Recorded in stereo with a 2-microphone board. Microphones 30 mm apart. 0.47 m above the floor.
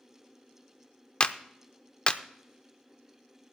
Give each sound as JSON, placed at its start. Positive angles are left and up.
{"t": 1.2, "sound": "a clap", "side_deg": 40, "distance_m": 0.6}